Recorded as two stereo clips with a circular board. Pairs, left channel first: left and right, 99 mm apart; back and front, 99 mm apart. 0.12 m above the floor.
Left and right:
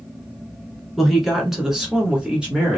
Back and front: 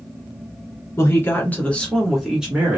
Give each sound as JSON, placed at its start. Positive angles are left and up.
{"t": 1.0, "sound": "a woman speaking", "azimuth_deg": 180, "distance_m": 1.3}